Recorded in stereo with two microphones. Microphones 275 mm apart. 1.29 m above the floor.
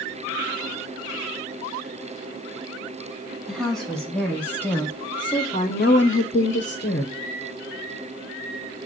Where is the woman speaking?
Centre (ahead or behind), 2 m; by 7.2 s 30° left (ahead or behind), 1.0 m.